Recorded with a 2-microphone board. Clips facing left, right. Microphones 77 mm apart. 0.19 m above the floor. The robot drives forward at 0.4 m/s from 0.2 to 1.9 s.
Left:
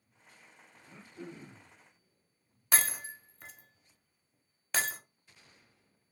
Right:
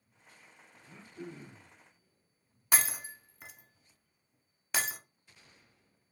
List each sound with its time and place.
0.8 s throat clearing: 5° right (ahead or behind), 1.7 m
2.7 s breaking glass: 5° right (ahead or behind), 0.8 m